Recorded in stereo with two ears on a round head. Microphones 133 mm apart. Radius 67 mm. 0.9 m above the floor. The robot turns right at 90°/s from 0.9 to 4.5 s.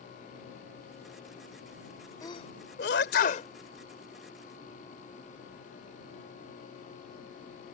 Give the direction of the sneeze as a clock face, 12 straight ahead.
11 o'clock.